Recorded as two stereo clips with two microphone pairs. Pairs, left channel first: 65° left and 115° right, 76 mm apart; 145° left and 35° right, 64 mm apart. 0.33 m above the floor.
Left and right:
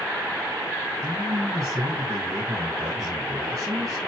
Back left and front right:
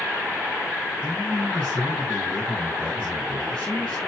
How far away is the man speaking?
About 2.5 m.